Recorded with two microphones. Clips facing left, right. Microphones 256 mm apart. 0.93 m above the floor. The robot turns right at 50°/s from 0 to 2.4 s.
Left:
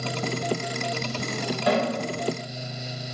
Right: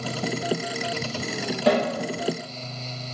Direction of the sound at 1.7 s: 75° right (ahead or behind).